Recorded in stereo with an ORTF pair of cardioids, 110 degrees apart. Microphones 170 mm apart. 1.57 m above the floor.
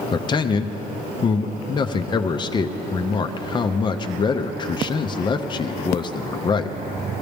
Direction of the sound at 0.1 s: 25° left.